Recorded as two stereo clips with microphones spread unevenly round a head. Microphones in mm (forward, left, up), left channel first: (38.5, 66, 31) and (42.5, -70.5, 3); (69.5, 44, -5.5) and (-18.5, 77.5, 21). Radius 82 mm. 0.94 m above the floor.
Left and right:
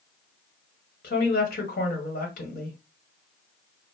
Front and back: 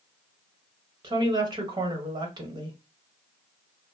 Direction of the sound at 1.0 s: 120° left.